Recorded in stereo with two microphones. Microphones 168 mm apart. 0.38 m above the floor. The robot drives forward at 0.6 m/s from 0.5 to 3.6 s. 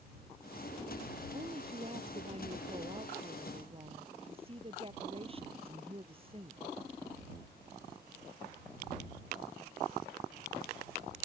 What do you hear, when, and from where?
1.3 s a woman speaking: 35° right (ahead or behind)